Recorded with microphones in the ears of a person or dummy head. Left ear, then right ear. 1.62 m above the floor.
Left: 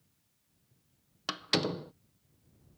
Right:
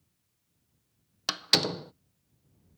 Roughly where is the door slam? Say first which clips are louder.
Right 5 dB; right.